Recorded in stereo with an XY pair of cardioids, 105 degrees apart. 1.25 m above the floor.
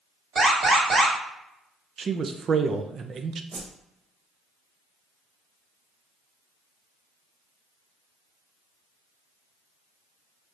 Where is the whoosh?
55° right, 1.0 m.